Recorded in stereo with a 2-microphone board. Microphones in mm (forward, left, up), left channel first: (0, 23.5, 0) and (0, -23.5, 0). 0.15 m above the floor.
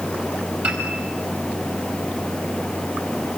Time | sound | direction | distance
0.6 | a piano | 35° right (ahead or behind) | 5 m